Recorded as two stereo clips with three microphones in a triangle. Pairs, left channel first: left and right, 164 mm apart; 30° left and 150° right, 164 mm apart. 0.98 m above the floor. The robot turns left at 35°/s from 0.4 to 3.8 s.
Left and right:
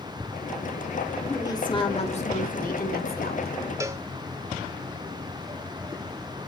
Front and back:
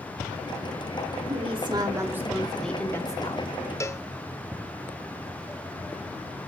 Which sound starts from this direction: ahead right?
A cowbell, at 3.8 s.